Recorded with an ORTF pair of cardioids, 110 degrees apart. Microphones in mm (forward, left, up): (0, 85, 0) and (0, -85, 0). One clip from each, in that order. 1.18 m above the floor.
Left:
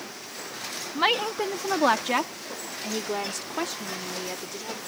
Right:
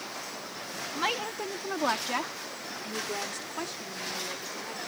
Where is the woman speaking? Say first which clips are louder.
Left 7 dB; 35° left.